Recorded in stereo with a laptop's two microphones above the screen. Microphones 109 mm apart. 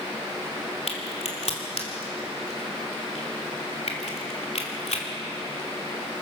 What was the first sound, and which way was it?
A crack, 75° left (ahead or behind).